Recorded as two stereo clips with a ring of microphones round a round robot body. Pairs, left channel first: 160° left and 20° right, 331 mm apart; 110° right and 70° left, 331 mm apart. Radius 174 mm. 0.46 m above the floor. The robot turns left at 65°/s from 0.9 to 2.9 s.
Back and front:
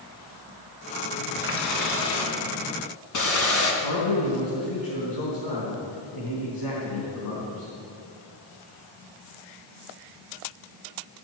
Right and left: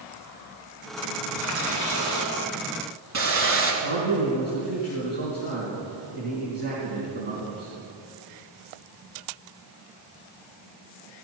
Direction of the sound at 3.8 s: 130° left.